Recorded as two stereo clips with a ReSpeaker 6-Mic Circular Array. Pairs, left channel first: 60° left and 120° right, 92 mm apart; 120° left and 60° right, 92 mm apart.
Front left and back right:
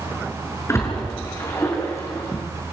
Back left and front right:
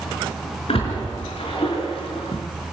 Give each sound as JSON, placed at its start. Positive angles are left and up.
{"t": 0.7, "sound": "a splash", "azimuth_deg": 120, "distance_m": 6.0}